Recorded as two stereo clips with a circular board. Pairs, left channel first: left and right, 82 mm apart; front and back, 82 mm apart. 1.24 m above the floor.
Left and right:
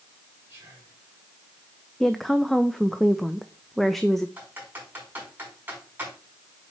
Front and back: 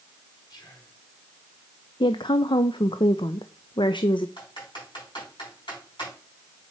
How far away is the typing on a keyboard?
About 5 m.